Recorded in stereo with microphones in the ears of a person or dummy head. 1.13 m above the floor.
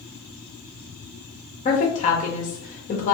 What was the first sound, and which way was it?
A woman speaking, 30° left (ahead or behind).